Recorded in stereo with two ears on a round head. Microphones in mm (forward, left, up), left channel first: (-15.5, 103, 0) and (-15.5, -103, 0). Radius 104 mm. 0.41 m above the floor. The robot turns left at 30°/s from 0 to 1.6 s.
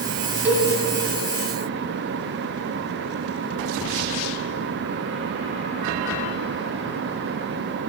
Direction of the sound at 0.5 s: 10° right (ahead or behind).